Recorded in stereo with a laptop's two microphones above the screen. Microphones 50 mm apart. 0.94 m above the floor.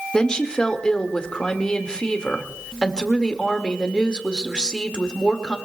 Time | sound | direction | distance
0.1 | a woman speaking | 15° left (ahead or behind) | 1.9 m